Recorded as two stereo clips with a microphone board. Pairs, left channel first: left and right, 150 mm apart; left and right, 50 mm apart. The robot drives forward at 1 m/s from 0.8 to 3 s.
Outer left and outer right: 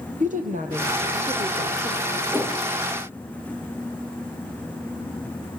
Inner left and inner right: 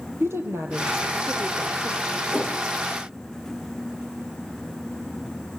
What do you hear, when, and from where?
0.2 s a woman speaking: 60° right (ahead or behind), 4.5 m; by 2.2 s 65° right (ahead or behind), 4 m
2.3 s a whoosh: 15° right (ahead or behind), 3 m